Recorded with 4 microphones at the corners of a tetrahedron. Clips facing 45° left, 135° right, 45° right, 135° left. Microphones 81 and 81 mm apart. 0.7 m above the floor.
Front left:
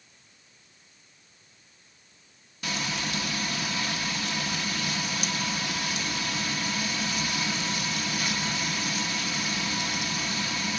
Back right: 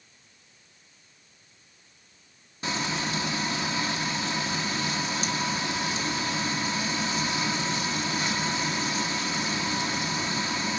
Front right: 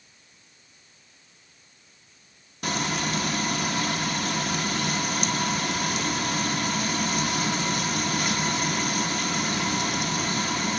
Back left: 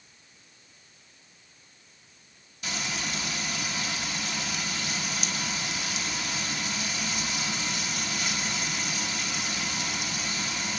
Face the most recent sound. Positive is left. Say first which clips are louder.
# back right 2 dB, front right 7 dB
turn(degrees=-75)